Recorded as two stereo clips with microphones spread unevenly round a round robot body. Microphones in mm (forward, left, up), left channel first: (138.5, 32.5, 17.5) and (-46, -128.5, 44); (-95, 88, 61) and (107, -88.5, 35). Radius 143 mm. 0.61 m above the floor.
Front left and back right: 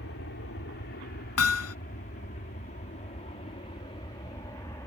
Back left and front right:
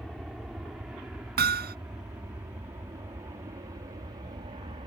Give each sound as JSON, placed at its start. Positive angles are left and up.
{"t": 0.0, "sound": "an aircraft", "azimuth_deg": 45}
{"t": 1.4, "sound": "hammering", "azimuth_deg": 15}